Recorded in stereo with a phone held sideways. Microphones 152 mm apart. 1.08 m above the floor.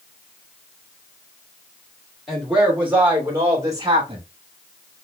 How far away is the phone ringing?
No phone ringing in this recording.